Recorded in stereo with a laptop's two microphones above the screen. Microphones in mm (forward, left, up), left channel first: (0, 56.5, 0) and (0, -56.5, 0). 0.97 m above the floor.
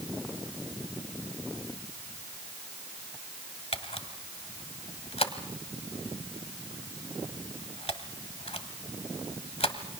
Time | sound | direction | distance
3.7 | a camera shutter | 60° left (ahead or behind) | 1.6 m